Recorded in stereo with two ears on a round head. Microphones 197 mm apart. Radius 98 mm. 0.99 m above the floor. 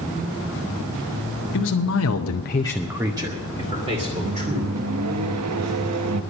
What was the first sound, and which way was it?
A man speaking, 60° left (ahead or behind).